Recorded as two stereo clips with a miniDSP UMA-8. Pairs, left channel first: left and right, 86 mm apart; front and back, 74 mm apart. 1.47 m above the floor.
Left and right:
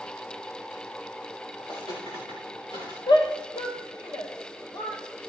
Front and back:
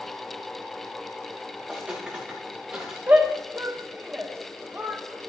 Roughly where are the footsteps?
Left.